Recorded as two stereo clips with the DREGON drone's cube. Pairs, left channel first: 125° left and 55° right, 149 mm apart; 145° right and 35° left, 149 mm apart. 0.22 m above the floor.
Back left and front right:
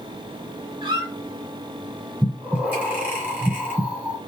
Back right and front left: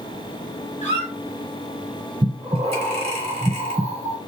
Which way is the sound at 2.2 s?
20° left.